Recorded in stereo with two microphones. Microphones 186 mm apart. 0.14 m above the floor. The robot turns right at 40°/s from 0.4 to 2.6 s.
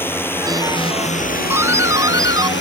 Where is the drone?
10° left; by 2.6 s 100° left.